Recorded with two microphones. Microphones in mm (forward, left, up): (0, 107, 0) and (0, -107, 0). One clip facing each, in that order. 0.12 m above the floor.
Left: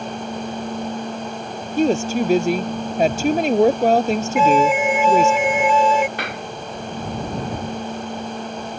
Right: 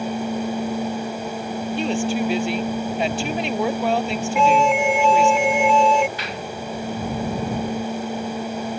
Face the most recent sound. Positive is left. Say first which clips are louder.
# left 1 dB
turn(degrees=60)  # may be behind; listen again after turning